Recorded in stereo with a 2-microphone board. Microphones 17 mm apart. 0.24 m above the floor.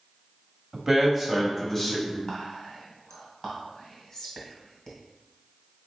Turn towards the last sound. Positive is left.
turn(degrees=40)  # may be behind; listen again after turning